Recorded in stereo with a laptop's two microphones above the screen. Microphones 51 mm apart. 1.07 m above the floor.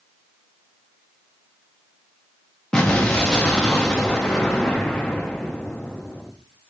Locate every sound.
2.7 s an explosion: 15° left (ahead or behind), 0.7 m